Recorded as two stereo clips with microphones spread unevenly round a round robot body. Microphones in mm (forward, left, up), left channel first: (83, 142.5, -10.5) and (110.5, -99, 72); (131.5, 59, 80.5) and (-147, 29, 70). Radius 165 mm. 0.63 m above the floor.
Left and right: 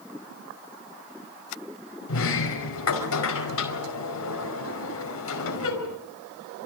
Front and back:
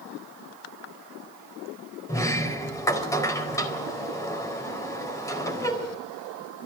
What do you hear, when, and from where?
2.1 s a sliding door: 85° left, 4.5 m